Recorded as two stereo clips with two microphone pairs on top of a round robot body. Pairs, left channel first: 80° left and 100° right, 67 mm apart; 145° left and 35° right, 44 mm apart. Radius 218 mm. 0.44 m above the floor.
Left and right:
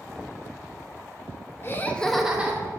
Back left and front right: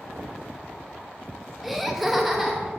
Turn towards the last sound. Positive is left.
turn(degrees=-120)